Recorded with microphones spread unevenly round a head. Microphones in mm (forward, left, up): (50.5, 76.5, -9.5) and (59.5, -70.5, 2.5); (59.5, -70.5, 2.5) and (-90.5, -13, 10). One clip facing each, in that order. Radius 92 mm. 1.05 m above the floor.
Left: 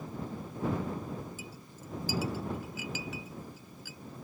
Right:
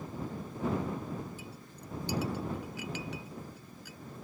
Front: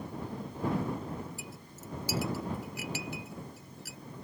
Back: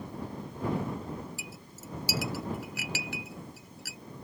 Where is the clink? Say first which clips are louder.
Even, even; straight behind.